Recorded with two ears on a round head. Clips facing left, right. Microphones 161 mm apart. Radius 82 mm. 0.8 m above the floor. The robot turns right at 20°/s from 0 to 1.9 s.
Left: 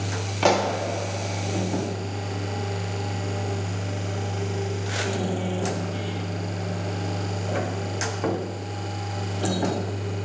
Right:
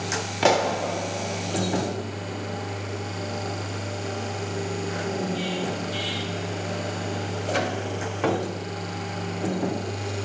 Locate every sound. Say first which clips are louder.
0.4 s a pop: even; 5° right (ahead or behind), 0.6 m; by 0.8 s 10° right (ahead or behind), 0.6 m